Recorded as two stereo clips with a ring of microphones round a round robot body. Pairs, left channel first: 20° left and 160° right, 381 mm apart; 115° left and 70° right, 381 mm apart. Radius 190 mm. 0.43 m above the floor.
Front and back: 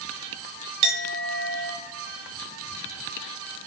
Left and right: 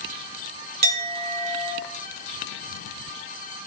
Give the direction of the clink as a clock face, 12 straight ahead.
5 o'clock.